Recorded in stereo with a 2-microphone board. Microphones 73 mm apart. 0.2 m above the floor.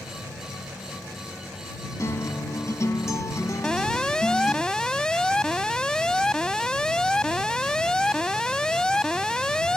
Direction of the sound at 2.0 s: 45° left (ahead or behind).